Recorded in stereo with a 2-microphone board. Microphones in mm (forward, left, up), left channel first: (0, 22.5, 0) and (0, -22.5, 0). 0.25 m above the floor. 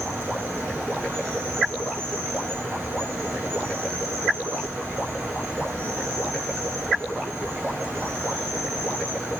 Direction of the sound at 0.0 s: 75° right (ahead or behind).